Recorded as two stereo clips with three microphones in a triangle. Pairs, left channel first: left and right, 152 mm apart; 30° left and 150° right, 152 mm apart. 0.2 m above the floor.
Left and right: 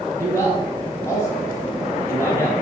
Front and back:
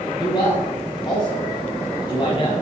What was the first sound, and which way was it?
A man speaking, 40° left.